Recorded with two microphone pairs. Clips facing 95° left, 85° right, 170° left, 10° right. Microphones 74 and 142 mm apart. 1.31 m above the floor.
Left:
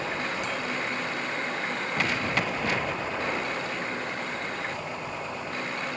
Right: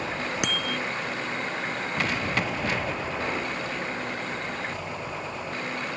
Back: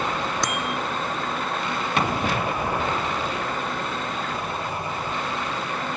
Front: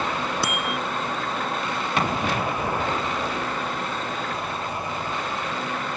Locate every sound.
0.4 s a bicycle bell: 95° right